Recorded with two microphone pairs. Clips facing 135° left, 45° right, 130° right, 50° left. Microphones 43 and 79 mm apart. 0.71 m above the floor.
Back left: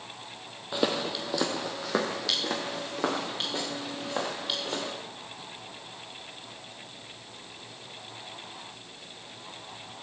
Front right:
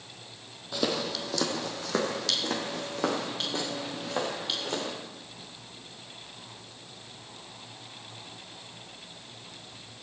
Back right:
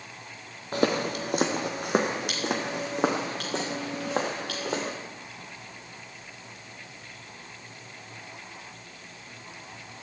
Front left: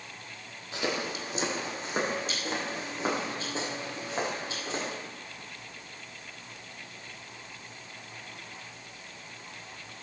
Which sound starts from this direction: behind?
Footsteps, at 0.7 s.